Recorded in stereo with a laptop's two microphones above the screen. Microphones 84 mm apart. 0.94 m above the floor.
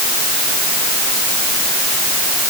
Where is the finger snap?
I don't hear a finger snap.